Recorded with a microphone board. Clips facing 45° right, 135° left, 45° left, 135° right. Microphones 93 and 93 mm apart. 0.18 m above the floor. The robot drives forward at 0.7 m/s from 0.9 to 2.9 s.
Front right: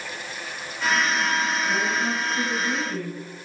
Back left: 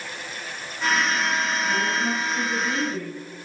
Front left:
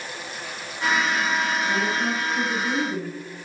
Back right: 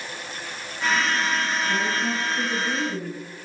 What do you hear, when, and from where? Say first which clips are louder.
1.7 s a woman speaking: even, front left 1 dB; 35° left, 2.5 m; by 3.2 s 60° left, 1.9 m